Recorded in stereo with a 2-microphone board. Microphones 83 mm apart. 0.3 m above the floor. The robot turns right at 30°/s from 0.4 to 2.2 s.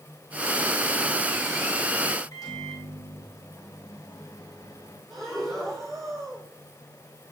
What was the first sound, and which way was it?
A microwave, 50° left (ahead or behind).